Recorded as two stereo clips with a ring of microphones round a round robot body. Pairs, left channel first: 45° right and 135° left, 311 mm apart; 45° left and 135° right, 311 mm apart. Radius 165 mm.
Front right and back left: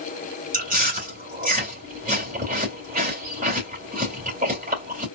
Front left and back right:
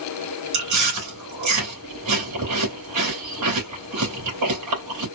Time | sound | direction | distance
0.5 | chewing | 160° right | 3.5 m